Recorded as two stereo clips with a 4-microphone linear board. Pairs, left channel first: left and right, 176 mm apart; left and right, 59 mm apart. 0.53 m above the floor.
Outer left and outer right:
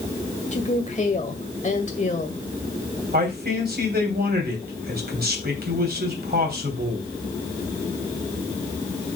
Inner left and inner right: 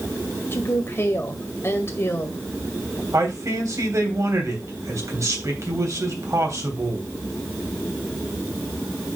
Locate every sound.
0.5 s a woman speaking: 45° left (ahead or behind), 1.8 m
3.1 s a man speaking: 65° right (ahead or behind), 3 m